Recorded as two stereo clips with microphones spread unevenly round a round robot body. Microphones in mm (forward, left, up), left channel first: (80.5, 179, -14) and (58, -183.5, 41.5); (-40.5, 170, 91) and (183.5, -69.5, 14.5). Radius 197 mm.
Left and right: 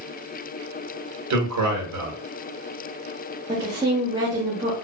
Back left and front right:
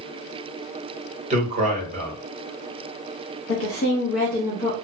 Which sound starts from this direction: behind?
A woman speaking, at 3.5 s.